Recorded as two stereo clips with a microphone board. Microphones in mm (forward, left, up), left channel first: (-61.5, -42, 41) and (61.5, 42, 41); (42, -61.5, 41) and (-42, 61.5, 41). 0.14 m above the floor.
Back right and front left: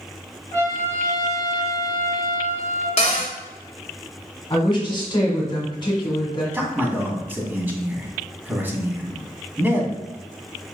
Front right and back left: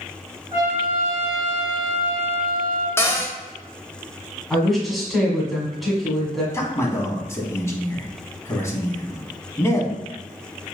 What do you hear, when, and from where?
0.5 s a trumpet: 175° left, 1.7 m
3.0 s a cupboard door: 125° right, 0.9 m
4.5 s a woman speaking: 145° right, 1.5 m
6.5 s a man speaking: 20° right, 1.1 m